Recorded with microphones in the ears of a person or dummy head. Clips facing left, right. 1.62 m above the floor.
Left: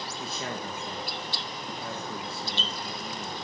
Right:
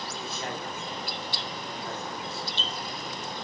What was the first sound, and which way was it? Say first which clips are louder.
A man speaking: left 1 dB; 70° left (ahead or behind).